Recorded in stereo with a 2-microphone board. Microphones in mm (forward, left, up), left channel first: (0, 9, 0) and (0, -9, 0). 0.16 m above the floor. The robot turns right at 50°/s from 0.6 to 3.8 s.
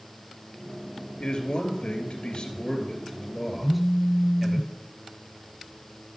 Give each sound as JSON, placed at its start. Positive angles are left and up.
{"t": 1.2, "sound": "a man speaking", "azimuth_deg": 55, "distance_m": 2.5}
{"t": 3.6, "sound": "a phone buzzing", "side_deg": 40, "distance_m": 1.1}